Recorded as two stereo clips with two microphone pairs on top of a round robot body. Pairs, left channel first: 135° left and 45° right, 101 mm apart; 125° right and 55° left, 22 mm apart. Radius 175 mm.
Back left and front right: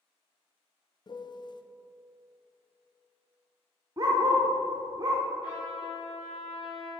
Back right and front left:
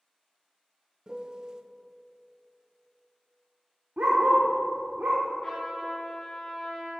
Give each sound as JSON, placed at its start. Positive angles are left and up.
{"t": 1.1, "sound": "a piano", "azimuth_deg": 105, "distance_m": 0.7}
{"t": 4.0, "sound": "a dog barking", "azimuth_deg": 20, "distance_m": 0.6}
{"t": 5.4, "sound": "a trumpet", "azimuth_deg": 170, "distance_m": 2.5}